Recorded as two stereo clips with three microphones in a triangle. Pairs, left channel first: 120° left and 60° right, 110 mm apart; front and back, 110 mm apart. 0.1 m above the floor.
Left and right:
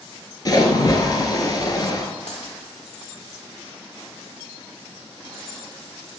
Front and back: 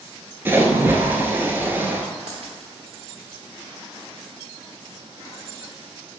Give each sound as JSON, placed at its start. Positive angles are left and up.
{"t": 0.5, "sound": "a splash", "azimuth_deg": 125, "distance_m": 0.6}
{"t": 2.3, "sound": "a dropped coin", "azimuth_deg": 145, "distance_m": 1.3}